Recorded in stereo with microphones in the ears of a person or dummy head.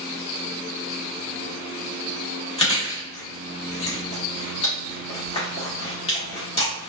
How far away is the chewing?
About 1.1 m.